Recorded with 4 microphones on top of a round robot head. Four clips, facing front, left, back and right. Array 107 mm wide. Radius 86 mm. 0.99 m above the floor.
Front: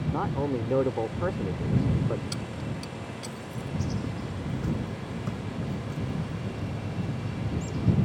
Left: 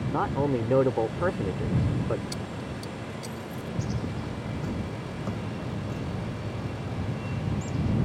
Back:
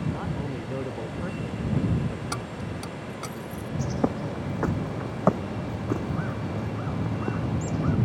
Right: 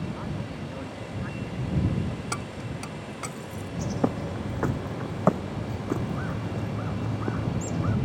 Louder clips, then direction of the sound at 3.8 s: Right 9 dB, back 10 dB; 140° right.